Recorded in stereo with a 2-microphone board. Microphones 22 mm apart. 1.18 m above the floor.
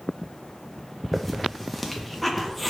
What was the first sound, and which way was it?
A hiss, 5° left (ahead or behind).